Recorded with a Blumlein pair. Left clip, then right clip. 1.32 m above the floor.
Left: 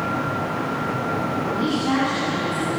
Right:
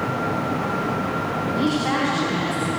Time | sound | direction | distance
1.4 | a woman speaking | 25° right | 8.5 m